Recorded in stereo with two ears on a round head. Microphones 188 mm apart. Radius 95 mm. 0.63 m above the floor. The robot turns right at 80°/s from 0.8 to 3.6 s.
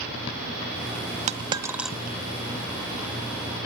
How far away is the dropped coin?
About 0.5 m.